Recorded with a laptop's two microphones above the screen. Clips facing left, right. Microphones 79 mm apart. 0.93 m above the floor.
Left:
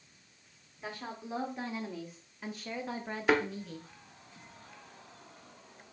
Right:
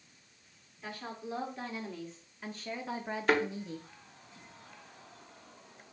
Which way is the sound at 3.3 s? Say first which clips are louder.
Left 1 dB; 5° left (ahead or behind).